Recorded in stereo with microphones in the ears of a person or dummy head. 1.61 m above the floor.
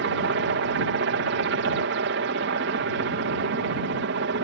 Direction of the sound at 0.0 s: 55° right (ahead or behind).